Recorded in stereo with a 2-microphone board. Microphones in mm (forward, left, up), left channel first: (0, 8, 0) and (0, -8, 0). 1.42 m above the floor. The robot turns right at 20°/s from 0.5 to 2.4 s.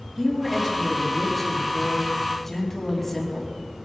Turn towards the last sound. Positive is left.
turn(degrees=20)